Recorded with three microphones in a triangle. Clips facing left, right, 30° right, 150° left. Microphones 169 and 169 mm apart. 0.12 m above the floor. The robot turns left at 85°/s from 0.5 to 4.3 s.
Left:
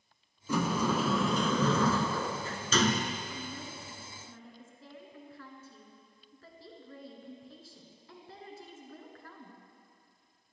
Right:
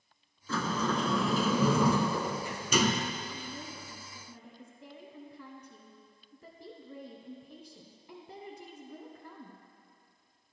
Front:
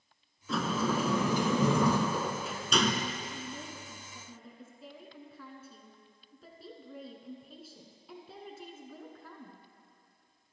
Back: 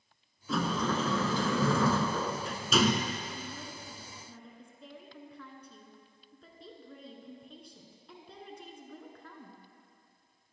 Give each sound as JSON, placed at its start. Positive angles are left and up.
{"t": 0.5, "sound": "a sliding door", "azimuth_deg": 65, "distance_m": 0.5}
{"t": 3.3, "sound": "a woman speaking", "azimuth_deg": -20, "distance_m": 1.1}